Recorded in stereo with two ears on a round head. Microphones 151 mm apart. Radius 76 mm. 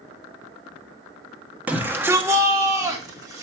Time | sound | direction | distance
1.7 | a shout | 10° right (ahead or behind) | 0.9 m